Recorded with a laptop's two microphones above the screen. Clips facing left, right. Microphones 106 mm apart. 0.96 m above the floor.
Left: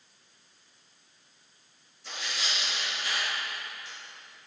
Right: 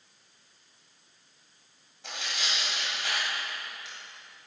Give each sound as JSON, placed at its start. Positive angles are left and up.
{"t": 2.0, "sound": "tearing paper", "side_deg": -80, "distance_m": 2.5}